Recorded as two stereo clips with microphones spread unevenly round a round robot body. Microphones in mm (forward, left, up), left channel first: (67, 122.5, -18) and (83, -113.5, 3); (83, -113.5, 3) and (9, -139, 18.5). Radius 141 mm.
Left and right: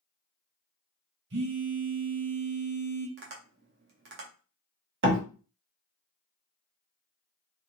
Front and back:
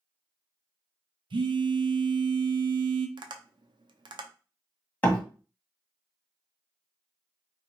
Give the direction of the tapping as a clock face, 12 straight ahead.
5 o'clock.